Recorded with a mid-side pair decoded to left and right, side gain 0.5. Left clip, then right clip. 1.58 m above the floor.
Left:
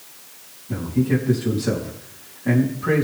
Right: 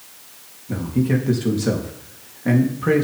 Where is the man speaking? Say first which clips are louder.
Even; 45° right, 3 m.